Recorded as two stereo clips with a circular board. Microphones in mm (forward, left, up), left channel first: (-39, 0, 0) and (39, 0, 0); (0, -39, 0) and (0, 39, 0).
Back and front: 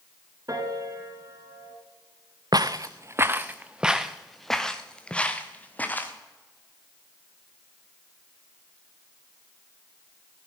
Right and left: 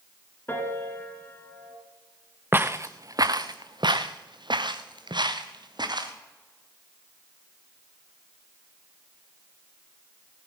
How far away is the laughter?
I don't hear laughter.